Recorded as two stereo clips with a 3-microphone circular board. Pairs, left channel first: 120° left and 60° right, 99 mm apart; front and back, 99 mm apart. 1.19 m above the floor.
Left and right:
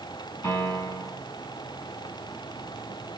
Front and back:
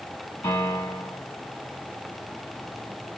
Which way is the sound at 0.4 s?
55° left.